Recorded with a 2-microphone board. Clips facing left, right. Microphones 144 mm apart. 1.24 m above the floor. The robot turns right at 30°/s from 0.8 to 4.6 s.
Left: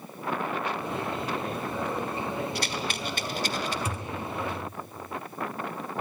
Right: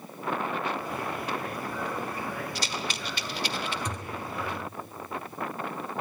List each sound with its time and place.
2.5 s a rattle: 55° left (ahead or behind), 1.4 m; by 3.8 s 40° left (ahead or behind), 1.4 m
3.9 s a thud: 5° left (ahead or behind), 1.4 m; by 4.2 s centre (ahead or behind), 1.4 m